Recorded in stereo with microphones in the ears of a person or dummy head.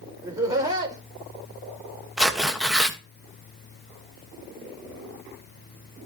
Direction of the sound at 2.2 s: 5° right (ahead or behind).